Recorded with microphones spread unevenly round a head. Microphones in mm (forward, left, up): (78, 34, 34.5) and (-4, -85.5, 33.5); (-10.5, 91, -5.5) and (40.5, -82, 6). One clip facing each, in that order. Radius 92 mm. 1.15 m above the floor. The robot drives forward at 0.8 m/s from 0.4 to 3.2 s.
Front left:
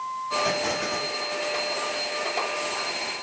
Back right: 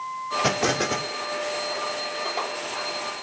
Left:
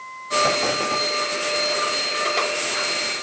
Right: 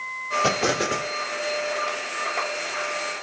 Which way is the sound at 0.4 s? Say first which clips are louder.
Back right 5 dB, right 1 dB; 135° right.